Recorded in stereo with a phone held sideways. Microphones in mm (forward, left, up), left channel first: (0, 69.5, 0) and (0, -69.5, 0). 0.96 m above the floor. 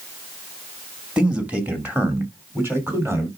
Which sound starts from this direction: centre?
A man speaking, at 1.2 s.